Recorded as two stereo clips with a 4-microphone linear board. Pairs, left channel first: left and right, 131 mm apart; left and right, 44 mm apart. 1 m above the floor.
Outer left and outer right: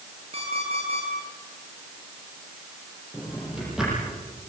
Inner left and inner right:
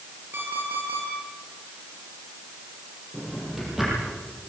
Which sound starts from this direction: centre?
A drawer, at 3.1 s.